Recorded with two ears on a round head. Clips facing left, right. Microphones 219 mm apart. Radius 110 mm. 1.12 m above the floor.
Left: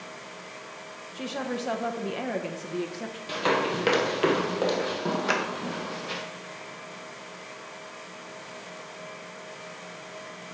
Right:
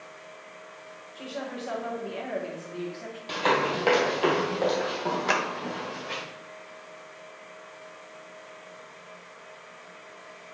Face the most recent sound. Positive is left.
turn(degrees=0)  # may be behind; listen again after turning